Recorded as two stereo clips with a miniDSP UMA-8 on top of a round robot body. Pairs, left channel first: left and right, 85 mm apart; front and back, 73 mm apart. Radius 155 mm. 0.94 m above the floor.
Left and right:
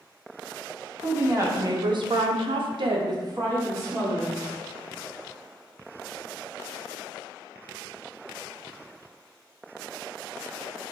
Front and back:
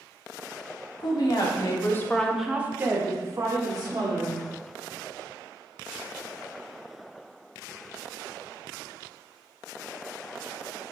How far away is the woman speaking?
About 0.9 m.